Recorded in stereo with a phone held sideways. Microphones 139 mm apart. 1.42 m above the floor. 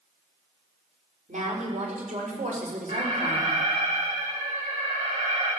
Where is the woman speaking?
60° right (ahead or behind), 4.5 m; by 3.6 s 80° right, 4 m.